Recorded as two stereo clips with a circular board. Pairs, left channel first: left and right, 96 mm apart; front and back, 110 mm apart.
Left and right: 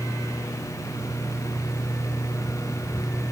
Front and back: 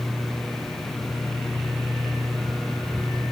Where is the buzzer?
No buzzer in this recording.